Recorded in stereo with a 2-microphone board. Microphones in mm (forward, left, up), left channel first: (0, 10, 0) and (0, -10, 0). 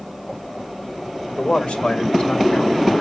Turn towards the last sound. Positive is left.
turn(degrees=60)  # may be behind; listen again after turning